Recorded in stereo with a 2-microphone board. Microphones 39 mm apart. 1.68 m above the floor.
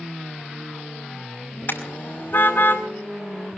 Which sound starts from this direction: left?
A car horn, at 1.7 s.